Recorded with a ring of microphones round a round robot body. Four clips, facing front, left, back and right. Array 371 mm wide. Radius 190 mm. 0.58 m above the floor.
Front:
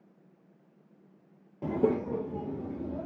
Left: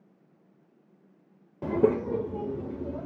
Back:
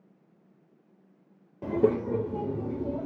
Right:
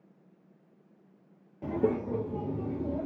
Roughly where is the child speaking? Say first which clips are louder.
Left 5 dB, back 3 dB; left.